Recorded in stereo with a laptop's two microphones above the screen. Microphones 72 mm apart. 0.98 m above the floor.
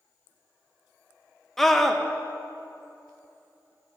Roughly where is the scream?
Centre.